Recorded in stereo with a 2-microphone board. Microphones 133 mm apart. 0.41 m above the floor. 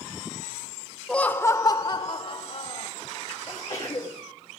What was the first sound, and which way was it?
Laughter, 5° left (ahead or behind).